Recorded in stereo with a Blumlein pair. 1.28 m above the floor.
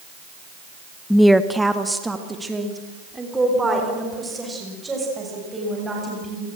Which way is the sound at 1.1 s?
5° left.